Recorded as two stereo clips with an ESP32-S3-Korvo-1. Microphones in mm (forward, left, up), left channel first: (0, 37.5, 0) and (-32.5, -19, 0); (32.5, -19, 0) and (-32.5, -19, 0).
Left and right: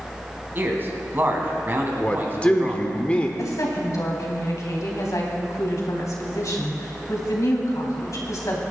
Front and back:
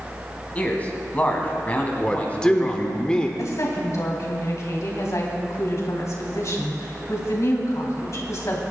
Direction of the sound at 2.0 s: 45° left.